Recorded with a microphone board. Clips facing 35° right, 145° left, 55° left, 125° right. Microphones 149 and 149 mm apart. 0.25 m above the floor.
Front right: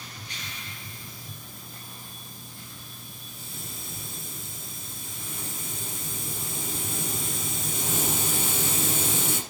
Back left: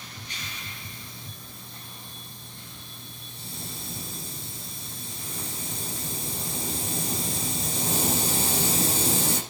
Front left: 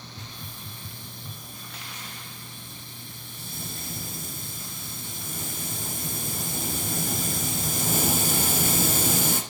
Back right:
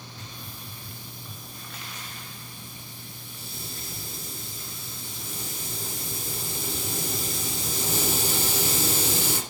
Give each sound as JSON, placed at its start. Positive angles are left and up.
{"t": 0.2, "sound": "a hiss", "azimuth_deg": 90, "distance_m": 6.0}